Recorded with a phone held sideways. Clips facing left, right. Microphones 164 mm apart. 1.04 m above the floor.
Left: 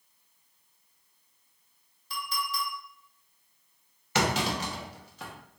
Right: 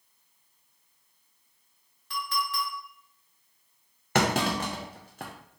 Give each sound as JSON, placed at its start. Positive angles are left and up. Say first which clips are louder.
{"t": 2.1, "sound": "a clink", "louder": "right 3 dB", "side_deg": -75, "distance_m": 2.0}
{"t": 4.2, "sound": "a clunk", "louder": "right 2 dB", "side_deg": -55, "distance_m": 0.6}